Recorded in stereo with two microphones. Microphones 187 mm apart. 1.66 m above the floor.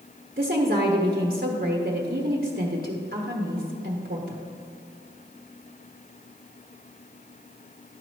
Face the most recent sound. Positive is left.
turn(degrees=-55)  # may be behind; listen again after turning